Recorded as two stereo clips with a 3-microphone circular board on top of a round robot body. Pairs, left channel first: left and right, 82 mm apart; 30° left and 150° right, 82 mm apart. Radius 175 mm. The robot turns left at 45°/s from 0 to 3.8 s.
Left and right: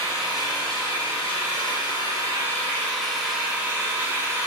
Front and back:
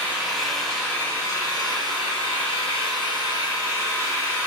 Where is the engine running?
145° left, 3.5 m; by 4.5 s 25° right, 3.5 m.